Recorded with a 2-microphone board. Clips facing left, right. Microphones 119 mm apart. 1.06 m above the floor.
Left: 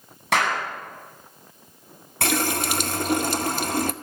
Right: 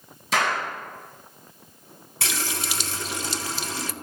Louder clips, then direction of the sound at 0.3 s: Left 2 dB; 70° left (ahead or behind).